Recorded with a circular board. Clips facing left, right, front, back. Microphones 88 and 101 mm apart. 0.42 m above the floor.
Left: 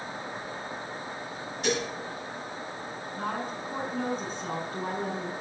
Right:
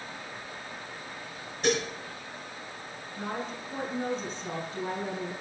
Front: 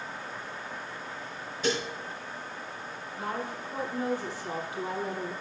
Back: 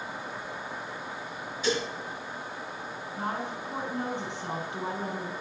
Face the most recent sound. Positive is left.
turn(degrees=125)